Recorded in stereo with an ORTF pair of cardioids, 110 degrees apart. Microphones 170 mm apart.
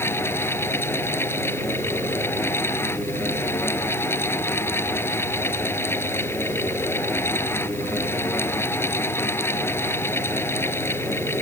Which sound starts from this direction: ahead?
A fan, at 0.0 s.